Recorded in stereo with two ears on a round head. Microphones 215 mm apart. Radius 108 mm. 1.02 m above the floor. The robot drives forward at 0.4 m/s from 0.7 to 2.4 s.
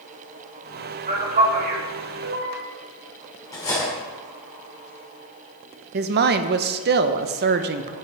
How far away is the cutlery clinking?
About 2 m.